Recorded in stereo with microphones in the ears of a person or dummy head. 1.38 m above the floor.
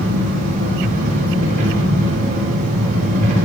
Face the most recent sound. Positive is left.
turn(degrees=-45)  # may be behind; listen again after turning